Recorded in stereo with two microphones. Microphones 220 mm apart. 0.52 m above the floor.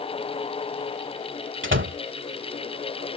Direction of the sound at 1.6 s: 70° right (ahead or behind).